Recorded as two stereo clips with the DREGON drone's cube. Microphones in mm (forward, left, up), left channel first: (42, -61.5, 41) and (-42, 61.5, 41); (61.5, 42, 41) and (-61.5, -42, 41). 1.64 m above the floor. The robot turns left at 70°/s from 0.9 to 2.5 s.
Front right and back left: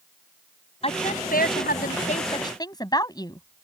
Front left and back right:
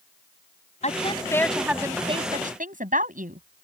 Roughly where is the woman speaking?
Ahead.